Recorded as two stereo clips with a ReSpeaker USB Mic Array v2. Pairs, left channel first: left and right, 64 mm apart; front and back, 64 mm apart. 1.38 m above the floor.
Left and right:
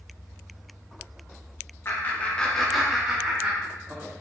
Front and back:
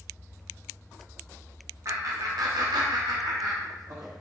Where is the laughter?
140° left, 0.9 m; by 4.1 s 150° right, 1.4 m.